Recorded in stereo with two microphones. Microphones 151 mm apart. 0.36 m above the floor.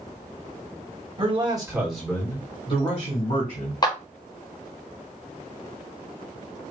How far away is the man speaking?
About 1.9 m.